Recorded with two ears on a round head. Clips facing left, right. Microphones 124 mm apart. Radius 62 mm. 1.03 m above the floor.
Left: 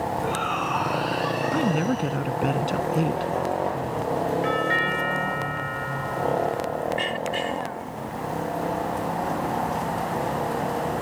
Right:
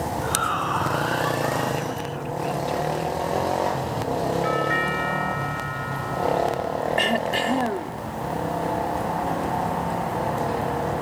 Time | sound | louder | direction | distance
0.2 | a shout | even | 15° left (ahead or behind) | ?
1.5 | a woman speaking | left 3 dB | 60° left (ahead or behind) | ?
4.4 | a doorbell | right 1 dB | 45° left (ahead or behind) | ?
7.0 | throat clearing | right 4 dB | 70° right (ahead or behind) | ?